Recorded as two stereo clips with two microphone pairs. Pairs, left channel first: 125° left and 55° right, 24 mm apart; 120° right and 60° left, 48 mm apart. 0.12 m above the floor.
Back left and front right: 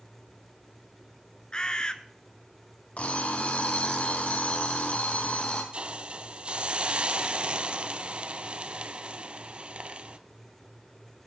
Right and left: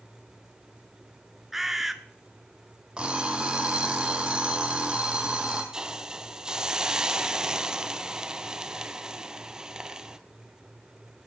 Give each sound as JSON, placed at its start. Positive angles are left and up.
{"t": 1.5, "sound": "a bird", "azimuth_deg": 135, "distance_m": 0.7}
{"t": 3.0, "sound": "an alarm clock", "azimuth_deg": 125, "distance_m": 1.8}
{"t": 5.7, "sound": "a hiss", "azimuth_deg": -15, "distance_m": 0.6}